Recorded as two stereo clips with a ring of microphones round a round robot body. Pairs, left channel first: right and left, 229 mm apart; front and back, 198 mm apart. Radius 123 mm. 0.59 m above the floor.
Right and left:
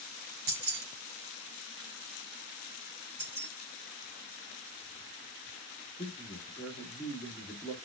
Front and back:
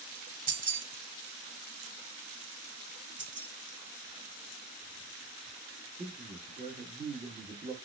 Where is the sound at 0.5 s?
135° left, 1.4 m.